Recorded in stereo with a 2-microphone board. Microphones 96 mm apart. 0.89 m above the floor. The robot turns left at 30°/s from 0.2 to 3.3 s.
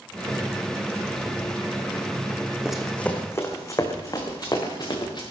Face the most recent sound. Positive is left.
turn(degrees=50)  # may be behind; listen again after turning